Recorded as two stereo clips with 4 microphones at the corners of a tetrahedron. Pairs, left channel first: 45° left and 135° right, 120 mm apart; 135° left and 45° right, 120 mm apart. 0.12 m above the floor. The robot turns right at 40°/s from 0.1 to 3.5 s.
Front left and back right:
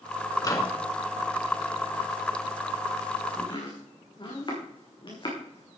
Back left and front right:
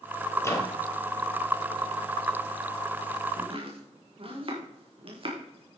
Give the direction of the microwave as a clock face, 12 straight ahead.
9 o'clock.